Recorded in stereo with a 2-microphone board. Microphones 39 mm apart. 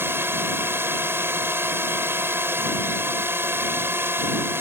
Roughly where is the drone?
Right.